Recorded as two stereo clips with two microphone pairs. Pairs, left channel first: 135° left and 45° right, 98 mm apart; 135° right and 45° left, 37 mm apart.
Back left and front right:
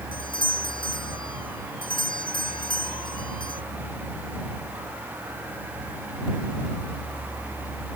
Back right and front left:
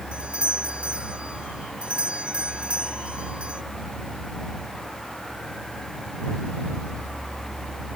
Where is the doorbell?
100° left.